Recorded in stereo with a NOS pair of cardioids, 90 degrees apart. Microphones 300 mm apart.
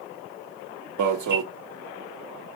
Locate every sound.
1.0 s an alarm: 65° right, 1.1 m